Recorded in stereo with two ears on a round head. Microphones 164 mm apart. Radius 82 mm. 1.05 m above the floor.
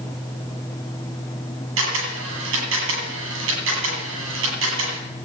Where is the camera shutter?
80° right, 9 m.